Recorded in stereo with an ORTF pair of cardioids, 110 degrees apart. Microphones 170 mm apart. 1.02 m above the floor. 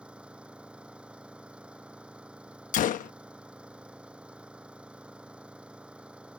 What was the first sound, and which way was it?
An engine running, 5° right.